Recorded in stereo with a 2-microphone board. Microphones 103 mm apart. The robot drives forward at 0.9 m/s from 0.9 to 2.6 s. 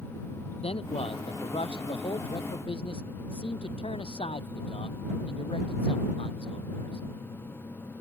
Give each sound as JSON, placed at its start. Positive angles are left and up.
{"t": 0.6, "sound": "a man speaking", "side_deg": 75}